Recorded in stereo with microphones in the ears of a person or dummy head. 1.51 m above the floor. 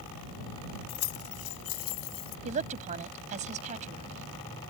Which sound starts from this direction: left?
Keys jangling, at 0.9 s.